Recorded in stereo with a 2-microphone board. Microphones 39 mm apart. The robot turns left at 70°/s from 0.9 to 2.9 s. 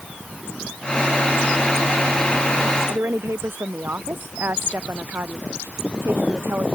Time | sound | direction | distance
2.9 | a woman speaking | 75° right (ahead or behind) | ?